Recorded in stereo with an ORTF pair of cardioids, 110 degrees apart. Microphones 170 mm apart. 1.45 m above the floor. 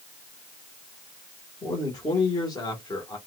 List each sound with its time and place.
1.6 s a man speaking: 20° left, 1.7 m